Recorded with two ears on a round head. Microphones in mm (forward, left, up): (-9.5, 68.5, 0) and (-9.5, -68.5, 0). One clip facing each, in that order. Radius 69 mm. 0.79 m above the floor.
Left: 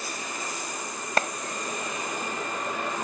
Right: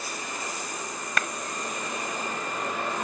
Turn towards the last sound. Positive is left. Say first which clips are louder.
# left 5 dB
turn(degrees=30)  # may be behind; listen again after turning